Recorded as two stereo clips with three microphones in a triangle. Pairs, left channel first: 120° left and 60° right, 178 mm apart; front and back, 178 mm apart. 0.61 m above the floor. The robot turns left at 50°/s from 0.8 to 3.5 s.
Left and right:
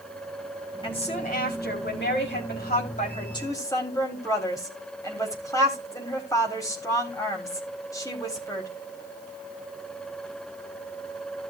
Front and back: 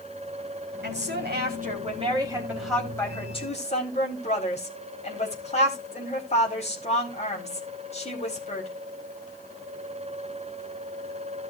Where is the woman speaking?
Straight behind, 4 m; by 8.7 s 50° left, 4 m.